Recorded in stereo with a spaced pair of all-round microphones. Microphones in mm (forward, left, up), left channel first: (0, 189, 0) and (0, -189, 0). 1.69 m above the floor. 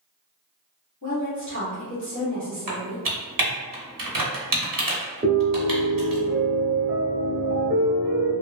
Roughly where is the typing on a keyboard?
Right.